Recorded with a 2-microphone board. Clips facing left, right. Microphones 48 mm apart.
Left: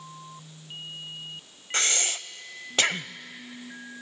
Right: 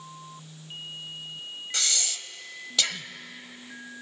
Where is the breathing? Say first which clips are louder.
Left 5 dB; 40° left (ahead or behind), 0.6 m.